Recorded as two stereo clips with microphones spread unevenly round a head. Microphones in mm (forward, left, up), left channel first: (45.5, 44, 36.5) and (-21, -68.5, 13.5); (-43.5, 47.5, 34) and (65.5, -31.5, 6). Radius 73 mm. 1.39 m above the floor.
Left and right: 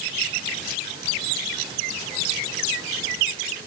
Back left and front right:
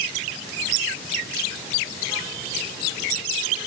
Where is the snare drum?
I don't hear a snare drum.